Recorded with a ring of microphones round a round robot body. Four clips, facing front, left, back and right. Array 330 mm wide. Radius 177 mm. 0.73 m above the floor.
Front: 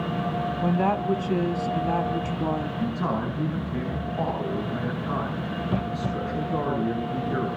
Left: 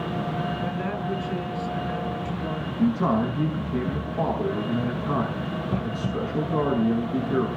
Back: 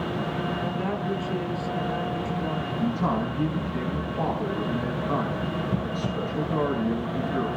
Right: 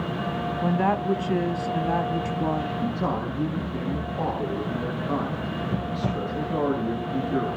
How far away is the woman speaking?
About 1.5 m.